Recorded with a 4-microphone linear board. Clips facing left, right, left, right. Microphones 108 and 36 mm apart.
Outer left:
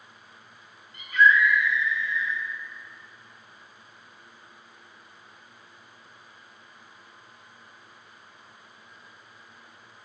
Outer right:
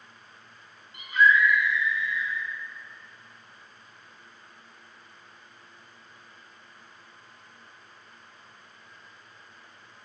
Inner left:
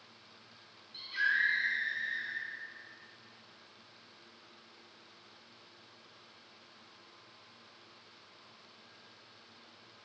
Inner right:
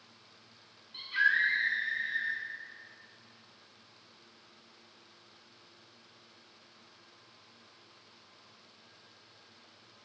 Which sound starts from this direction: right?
A scream, at 0.9 s.